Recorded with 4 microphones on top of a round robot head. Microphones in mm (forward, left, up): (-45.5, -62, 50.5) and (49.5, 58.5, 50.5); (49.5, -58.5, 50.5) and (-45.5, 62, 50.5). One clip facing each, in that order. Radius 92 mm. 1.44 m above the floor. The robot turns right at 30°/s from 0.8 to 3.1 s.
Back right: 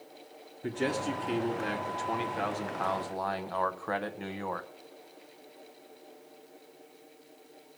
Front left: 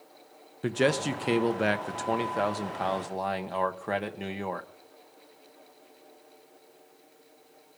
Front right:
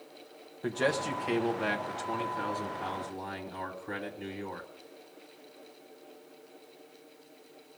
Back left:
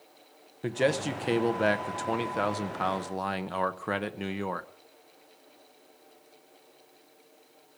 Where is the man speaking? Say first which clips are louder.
Front left 5 dB, back left 3 dB; 55° left, 1.0 m; by 4.7 s 125° left, 1.0 m.